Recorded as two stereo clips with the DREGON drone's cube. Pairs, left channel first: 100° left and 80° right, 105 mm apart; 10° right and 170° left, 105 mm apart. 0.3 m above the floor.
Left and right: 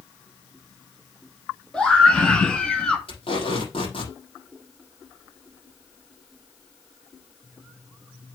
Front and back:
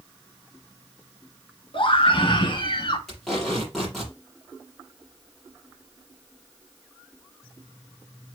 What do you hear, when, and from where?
1.7 s a scream: 20° left, 2.5 m
3.1 s tape being pulled: 75° left, 6.5 m